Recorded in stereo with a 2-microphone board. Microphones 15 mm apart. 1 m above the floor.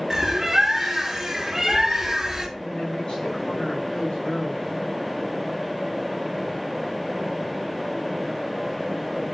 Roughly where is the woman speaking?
Left.